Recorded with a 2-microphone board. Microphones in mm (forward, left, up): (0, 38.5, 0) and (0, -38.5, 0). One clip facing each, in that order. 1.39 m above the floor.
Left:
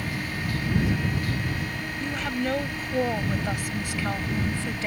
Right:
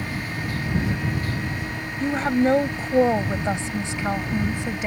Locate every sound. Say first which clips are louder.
2.0 s a woman speaking: right 9 dB; 35° right (ahead or behind); by 4.9 s 15° right (ahead or behind)